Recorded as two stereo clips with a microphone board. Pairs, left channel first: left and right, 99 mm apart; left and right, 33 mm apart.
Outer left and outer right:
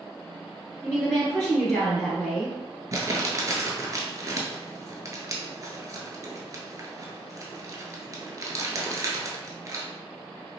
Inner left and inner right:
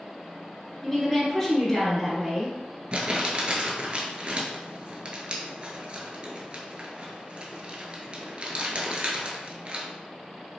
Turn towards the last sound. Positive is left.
turn(degrees=-35)  # may be behind; listen again after turning